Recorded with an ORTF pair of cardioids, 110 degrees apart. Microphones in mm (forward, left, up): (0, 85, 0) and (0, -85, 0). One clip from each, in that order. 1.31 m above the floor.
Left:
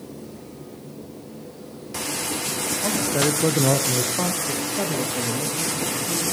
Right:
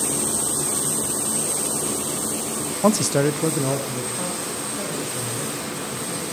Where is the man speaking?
55° right, 0.5 m; by 6.2 s 55° left, 2.5 m.